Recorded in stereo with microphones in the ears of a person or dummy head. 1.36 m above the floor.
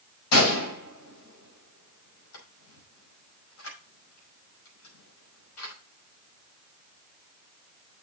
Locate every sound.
0.3 s a gunshot: 85° left, 5.5 m